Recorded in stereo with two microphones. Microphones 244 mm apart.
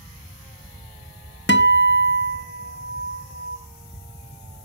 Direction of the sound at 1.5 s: 45° left (ahead or behind).